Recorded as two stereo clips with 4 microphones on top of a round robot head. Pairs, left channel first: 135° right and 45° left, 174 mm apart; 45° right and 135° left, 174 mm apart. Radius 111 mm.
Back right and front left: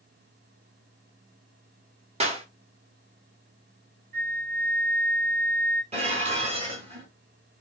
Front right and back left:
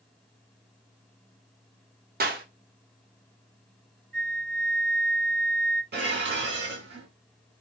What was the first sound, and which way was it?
A clap, 100° left.